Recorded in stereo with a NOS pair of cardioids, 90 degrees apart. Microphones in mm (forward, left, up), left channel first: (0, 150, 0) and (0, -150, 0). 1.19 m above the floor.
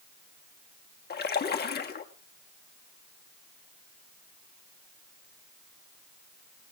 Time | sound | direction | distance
1.1 | a splash | 35° left | 1.3 m